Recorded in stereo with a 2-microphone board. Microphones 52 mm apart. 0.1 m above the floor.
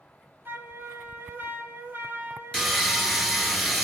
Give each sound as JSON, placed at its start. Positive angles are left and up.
{"t": 0.5, "sound": "a flute", "side_deg": -40, "distance_m": 0.9}
{"t": 2.5, "sound": "sawing", "side_deg": 0, "distance_m": 0.7}